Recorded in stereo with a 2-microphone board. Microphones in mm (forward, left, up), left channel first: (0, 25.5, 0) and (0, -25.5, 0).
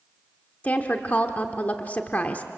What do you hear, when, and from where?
0.6 s a woman speaking: 30° left (ahead or behind), 1.1 m